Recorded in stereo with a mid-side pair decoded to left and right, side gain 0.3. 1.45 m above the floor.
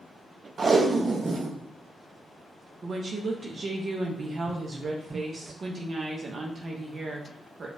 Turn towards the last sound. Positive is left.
turn(degrees=-60)